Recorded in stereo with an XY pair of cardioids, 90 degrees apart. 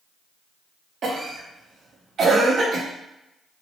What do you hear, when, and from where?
1.0 s a cough: 55° right, 0.7 m